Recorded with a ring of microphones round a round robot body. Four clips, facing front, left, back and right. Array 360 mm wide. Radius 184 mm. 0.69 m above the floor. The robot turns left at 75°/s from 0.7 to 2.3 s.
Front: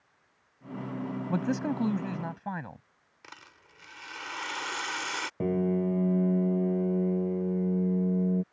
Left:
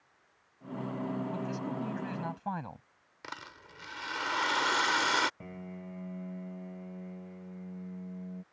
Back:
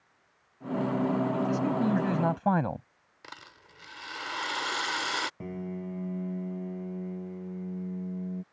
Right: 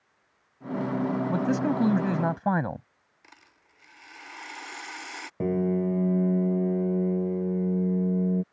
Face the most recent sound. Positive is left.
turn(degrees=-65)